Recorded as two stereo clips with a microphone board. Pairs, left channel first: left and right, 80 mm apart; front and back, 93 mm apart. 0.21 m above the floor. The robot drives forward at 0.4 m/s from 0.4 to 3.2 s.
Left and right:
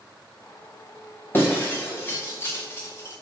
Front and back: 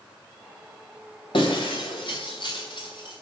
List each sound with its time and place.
1.3 s breaking glass: 30° left, 3.5 m; by 3.2 s 35° left, 3 m